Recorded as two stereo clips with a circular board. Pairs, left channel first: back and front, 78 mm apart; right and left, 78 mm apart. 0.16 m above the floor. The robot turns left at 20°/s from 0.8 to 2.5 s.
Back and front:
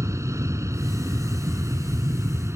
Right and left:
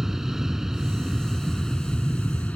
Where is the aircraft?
5° left; by 2.6 s 25° right.